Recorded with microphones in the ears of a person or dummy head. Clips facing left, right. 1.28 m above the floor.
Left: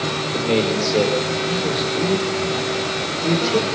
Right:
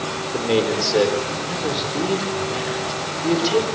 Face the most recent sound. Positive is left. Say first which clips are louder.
# even
turn(degrees=-5)  # may be behind; listen again after turning